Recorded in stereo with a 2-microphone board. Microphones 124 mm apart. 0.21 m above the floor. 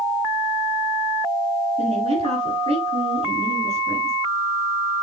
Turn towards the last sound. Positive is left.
turn(degrees=-50)  # may be behind; listen again after turning